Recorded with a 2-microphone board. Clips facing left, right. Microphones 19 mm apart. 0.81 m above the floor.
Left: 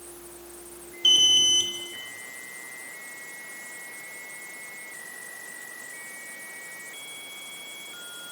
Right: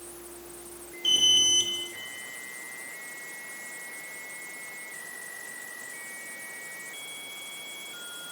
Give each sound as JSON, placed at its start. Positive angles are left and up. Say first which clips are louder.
{"t": 1.0, "sound": "an alarm", "louder": "left 3 dB", "side_deg": 30, "distance_m": 2.0}